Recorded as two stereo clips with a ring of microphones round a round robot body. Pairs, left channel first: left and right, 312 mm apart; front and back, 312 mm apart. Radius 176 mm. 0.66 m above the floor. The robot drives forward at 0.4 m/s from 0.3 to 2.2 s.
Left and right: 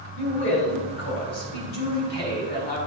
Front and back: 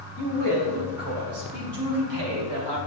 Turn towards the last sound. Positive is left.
turn(degrees=150)